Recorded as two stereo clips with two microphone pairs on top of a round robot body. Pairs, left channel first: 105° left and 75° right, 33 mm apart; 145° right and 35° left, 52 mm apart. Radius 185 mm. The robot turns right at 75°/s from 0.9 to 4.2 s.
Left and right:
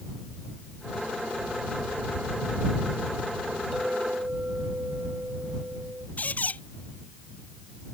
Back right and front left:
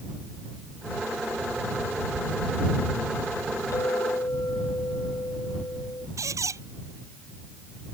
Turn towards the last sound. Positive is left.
turn(degrees=60)